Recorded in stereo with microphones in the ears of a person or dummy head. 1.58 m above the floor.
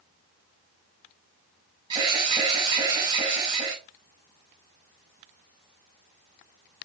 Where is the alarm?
30° right (ahead or behind), 4.5 m.